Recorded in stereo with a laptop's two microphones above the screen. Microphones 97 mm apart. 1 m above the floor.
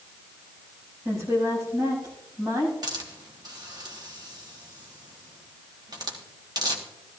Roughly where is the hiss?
Right.